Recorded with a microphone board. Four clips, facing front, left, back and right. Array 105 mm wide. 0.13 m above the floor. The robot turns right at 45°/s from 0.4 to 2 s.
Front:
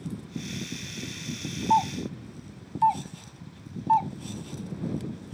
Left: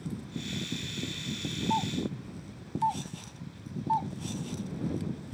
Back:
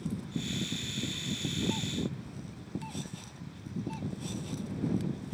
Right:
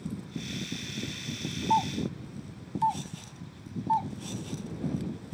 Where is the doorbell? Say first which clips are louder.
Right 5 dB, front 12 dB; 20° right; by 4.1 s 5° right.